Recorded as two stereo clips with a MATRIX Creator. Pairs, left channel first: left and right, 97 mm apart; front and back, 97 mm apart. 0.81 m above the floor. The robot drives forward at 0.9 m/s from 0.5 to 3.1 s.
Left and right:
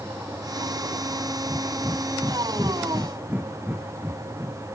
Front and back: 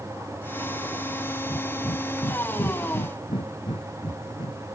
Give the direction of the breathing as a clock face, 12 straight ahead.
1 o'clock.